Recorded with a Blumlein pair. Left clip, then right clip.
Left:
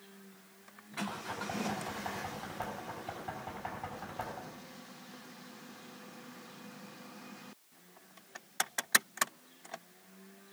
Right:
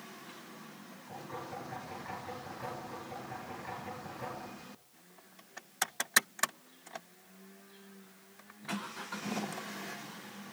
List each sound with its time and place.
1.1 s knocking: 30° left, 5.5 m